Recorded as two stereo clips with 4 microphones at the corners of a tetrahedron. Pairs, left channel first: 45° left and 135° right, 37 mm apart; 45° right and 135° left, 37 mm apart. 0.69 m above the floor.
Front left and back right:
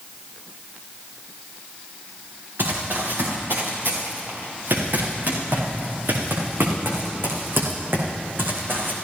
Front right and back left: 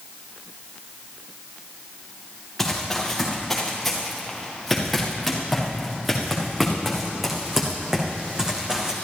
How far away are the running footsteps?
About 5.5 m.